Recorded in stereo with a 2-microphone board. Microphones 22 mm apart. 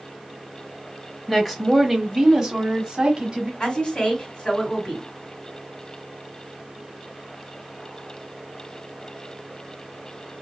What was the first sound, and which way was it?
A woman speaking, 15° left (ahead or behind).